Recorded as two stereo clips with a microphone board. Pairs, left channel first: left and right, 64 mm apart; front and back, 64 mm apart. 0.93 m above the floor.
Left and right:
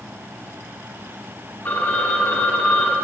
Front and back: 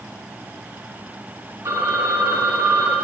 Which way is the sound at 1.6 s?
150° left.